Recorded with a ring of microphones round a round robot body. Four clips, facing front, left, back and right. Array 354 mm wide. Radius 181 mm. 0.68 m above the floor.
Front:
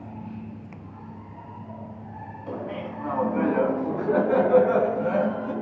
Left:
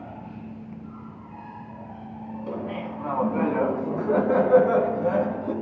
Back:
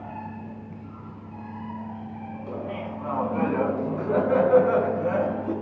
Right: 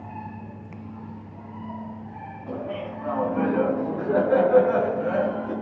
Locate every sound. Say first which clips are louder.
2.5 s laughter: right 1 dB, front 1 dB; 95° left, 5.5 m; by 5.5 s 110° left, 6 m